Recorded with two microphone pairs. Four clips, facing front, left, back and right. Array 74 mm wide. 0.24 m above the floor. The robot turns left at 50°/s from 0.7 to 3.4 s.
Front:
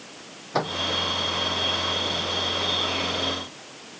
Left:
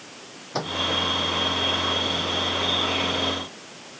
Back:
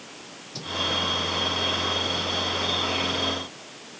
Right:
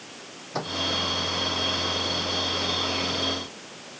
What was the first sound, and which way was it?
A microwave, 5° left.